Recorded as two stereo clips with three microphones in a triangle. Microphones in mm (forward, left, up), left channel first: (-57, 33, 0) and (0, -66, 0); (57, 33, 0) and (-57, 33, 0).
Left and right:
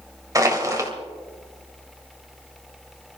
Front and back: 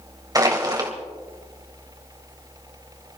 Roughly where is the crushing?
Behind right.